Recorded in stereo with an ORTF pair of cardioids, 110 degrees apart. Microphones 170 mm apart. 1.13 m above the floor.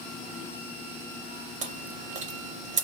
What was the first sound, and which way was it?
Chewing, 45° right.